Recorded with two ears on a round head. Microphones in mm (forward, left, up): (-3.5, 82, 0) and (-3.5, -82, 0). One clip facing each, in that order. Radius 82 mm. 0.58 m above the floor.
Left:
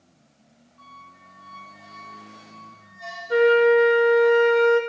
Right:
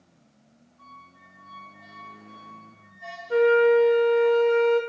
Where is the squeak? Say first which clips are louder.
Left 2 dB; 85° left, 5 m.